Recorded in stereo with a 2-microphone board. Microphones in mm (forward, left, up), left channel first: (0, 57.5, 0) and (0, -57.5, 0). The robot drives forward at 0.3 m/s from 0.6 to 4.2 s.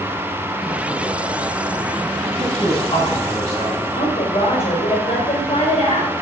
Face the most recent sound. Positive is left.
turn(degrees=75)  # may be behind; listen again after turning